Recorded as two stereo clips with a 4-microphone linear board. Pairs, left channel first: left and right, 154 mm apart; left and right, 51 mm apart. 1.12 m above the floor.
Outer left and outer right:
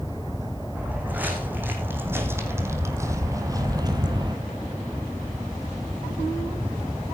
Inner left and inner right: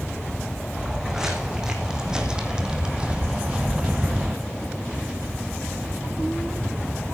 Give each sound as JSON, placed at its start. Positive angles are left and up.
{"t": 0.8, "sound": "footsteps", "side_deg": -10, "distance_m": 3.5}